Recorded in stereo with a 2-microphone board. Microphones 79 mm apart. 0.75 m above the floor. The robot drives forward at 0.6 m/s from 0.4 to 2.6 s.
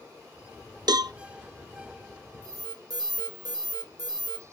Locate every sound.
0.9 s a cowbell: 60° right (ahead or behind), 0.6 m; by 1.1 s 55° right (ahead or behind), 0.6 m
2.4 s an alarm: 55° right (ahead or behind), 3 m; by 4.4 s 60° right (ahead or behind), 3 m